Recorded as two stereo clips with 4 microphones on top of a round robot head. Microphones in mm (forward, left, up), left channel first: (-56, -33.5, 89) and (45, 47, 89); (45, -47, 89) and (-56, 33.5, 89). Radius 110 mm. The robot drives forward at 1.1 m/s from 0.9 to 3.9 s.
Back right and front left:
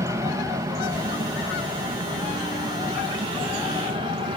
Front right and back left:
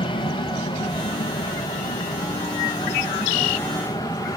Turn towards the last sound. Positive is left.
turn(degrees=10)